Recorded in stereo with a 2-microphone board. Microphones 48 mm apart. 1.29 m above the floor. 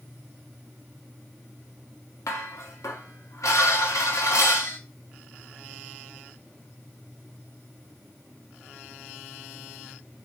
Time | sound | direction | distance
2.3 | dishes clattering | 80° left | 2 m